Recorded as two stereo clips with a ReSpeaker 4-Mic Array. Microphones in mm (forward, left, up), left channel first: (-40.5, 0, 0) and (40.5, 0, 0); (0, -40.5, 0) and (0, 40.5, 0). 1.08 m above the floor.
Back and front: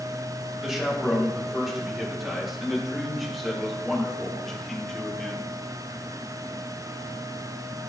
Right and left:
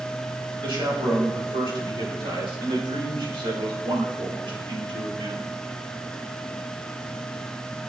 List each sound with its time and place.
0.6 s a man speaking: 80° left, 4.5 m; by 5.4 s 100° left, 2.5 m